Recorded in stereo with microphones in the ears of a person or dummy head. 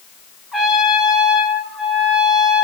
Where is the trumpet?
5° right (ahead or behind), 3.5 m.